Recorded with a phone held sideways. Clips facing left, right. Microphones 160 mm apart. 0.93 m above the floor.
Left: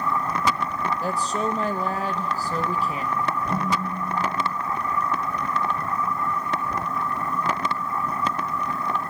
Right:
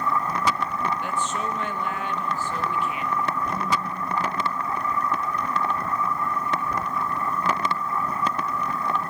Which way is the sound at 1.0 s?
40° left (ahead or behind).